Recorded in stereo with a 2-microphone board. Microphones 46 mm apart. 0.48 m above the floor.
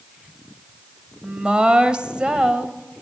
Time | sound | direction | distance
1.2 | a woman speaking | 20° right (ahead or behind) | 2.0 m